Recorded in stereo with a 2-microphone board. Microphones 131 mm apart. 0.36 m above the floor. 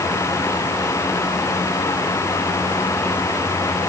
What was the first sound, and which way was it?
Only background noise.